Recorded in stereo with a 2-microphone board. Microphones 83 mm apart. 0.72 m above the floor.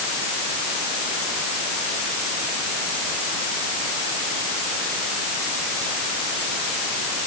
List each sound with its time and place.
Only background noise.